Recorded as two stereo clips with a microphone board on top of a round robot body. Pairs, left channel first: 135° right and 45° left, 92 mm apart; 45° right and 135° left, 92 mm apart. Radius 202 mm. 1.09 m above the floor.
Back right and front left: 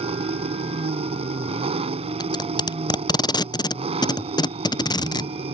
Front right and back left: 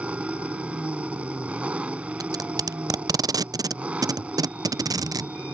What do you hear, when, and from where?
0.0 s an engine running: 55° left
2.2 s tape being pulled: 175° right